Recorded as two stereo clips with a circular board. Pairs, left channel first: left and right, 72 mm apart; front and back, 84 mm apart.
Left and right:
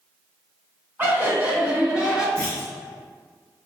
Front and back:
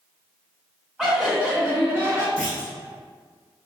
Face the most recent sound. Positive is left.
turn(degrees=40)